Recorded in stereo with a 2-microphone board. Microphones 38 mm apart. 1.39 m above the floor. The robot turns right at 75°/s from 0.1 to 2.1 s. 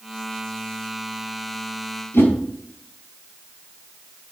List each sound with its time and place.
2.1 s a whoosh: 80° left, 4 m